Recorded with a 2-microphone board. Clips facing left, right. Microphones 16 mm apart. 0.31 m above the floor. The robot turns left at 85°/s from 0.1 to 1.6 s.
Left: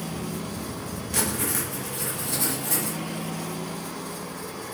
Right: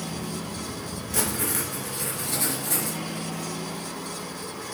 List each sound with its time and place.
1.1 s writing: 25° left, 4 m; by 3.0 s 15° right, 4 m